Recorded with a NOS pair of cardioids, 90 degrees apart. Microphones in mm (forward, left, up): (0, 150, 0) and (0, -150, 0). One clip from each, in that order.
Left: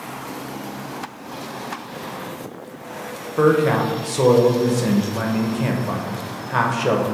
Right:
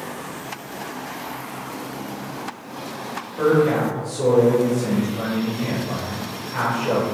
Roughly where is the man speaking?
Ahead left.